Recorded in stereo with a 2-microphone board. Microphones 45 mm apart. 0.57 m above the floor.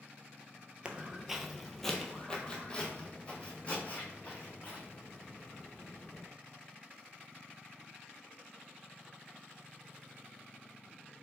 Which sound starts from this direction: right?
Footsteps, at 0.8 s.